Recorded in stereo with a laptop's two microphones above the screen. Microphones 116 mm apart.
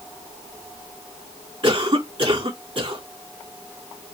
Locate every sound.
1.6 s a cough: 55° right (ahead or behind), 2.5 m